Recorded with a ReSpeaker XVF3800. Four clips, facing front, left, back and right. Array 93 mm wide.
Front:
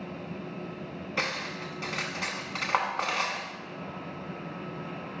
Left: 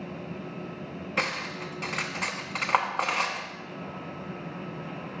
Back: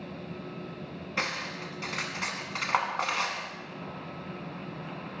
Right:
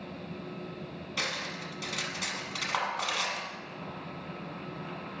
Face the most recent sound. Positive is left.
turn(degrees=90)